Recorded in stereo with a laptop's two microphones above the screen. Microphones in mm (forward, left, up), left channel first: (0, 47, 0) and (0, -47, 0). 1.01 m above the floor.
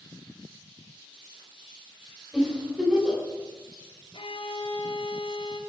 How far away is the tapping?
I don't hear tapping.